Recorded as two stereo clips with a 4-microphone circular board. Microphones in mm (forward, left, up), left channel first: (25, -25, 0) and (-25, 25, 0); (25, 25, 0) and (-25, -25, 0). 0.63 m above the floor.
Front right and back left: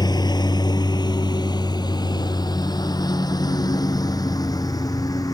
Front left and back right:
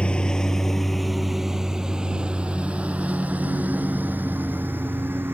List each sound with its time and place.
0.0 s a lawn mower: 30° right; by 5.3 s 75° right